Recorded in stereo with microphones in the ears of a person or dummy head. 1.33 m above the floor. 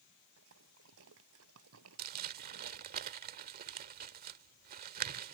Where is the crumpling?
50° right (ahead or behind).